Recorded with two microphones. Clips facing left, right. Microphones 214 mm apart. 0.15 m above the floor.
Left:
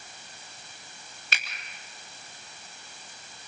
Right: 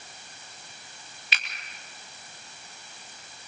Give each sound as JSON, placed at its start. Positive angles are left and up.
{"t": 1.3, "sound": "a finger snap", "side_deg": 45, "distance_m": 3.5}